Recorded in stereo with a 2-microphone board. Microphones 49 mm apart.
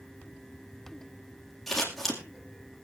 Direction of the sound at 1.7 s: Centre (ahead or behind).